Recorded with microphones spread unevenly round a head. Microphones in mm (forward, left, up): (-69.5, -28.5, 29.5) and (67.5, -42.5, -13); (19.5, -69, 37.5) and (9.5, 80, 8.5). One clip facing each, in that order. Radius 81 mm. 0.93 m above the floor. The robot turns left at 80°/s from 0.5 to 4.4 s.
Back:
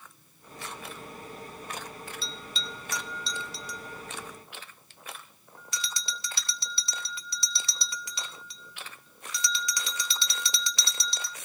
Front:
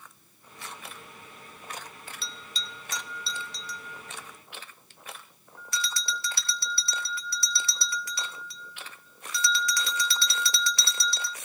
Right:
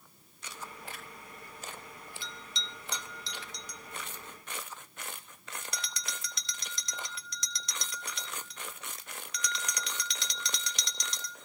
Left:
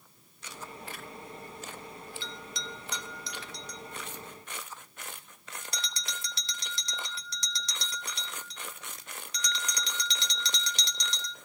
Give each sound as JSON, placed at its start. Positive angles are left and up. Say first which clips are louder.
{"t": 2.2, "sound": "a bell", "louder": "back 3 dB, left 4 dB", "azimuth_deg": -30, "distance_m": 0.7}